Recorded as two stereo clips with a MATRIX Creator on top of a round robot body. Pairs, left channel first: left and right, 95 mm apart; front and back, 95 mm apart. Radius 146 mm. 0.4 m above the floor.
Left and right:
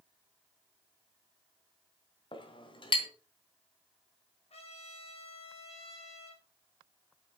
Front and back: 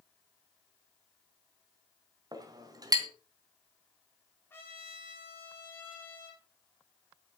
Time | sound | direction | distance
2.3 | a clink | 130° left | 3 m
4.5 | a trumpet | 65° left | 6.5 m